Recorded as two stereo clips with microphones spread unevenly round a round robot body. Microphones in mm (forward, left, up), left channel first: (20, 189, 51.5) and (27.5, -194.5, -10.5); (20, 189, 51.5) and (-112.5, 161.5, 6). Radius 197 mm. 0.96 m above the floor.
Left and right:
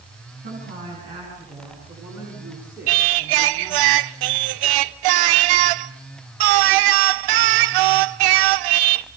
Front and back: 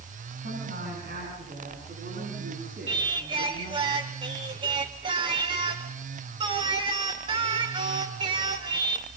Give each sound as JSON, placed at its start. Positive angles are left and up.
{"t": 0.4, "sound": "a woman speaking", "azimuth_deg": -165, "distance_m": 9.5}
{"t": 2.9, "sound": "singing", "azimuth_deg": -90, "distance_m": 0.7}